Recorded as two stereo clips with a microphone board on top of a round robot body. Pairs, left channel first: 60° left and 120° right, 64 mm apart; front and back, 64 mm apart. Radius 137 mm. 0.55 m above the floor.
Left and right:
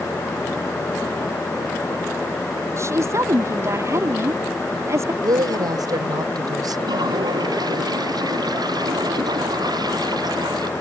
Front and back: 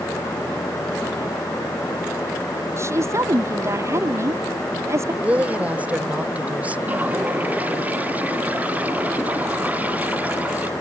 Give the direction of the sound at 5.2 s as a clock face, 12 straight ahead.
4 o'clock.